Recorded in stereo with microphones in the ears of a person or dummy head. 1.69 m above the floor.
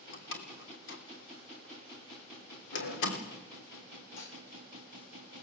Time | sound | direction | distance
0.1 | a door slam | 65° left (ahead or behind) | 3 m
2.7 | a sliding door | 60° left (ahead or behind) | 4 m
4.2 | dishes clattering | 70° left (ahead or behind) | 4 m